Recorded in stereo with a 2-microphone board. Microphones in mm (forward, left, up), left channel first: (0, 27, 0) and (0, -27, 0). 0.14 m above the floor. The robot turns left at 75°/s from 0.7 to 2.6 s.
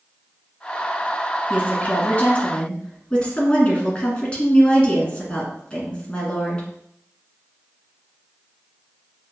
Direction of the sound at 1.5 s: 20° left (ahead or behind).